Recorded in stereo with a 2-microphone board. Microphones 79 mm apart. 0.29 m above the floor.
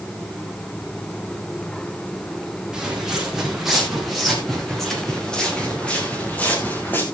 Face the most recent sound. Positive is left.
turn(degrees=25)  # may be behind; listen again after turning